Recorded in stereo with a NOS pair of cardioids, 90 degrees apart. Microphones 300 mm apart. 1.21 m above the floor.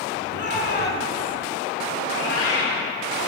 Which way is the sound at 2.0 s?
45° left.